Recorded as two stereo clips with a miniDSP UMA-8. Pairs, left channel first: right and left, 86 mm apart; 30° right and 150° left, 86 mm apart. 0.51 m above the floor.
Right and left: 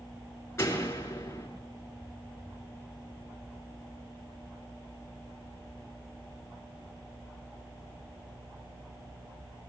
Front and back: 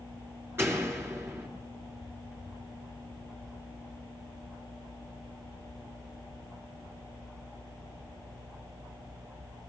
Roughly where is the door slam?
Behind right.